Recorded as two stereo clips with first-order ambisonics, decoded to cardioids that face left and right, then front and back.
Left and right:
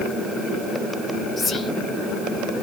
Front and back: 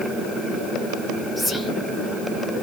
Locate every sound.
1.4 s whispering: 95° left, 0.7 m